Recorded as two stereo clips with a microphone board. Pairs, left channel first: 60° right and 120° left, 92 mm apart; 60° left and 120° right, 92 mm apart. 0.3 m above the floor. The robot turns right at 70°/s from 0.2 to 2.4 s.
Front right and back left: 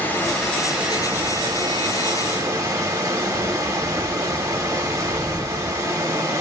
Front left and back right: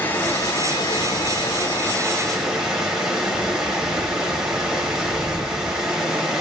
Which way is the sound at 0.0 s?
Straight ahead.